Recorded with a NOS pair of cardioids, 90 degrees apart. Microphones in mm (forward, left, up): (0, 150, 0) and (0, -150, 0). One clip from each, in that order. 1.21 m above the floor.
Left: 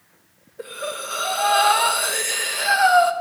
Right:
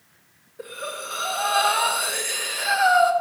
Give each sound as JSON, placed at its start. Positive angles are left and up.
{"t": 0.6, "sound": "breathing", "azimuth_deg": 20, "distance_m": 1.3}